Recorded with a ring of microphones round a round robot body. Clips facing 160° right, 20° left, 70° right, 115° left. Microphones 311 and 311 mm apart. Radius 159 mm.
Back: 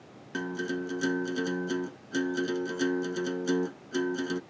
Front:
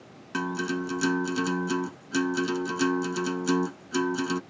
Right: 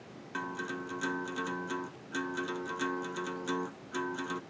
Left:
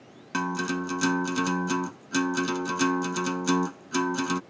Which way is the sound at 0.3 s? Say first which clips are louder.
Front 3 dB, left 10 dB; 90° left.